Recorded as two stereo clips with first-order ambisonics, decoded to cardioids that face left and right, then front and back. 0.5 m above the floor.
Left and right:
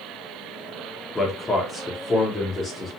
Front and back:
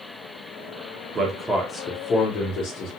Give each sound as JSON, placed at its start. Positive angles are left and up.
{"t": 1.1, "sound": "a man speaking", "azimuth_deg": 160, "distance_m": 0.7}